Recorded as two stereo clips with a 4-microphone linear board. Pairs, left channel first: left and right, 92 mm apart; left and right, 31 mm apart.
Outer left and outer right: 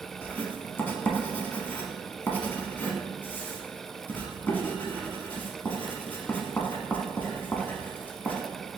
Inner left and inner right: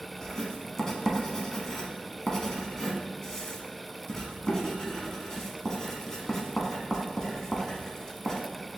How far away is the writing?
About 0.8 m.